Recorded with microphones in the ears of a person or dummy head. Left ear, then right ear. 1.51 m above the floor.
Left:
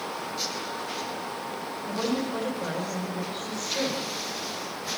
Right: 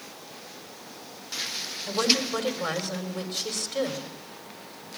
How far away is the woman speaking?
About 4.5 m.